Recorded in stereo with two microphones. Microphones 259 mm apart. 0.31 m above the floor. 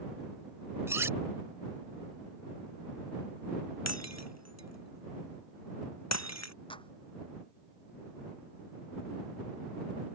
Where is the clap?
20° left (ahead or behind).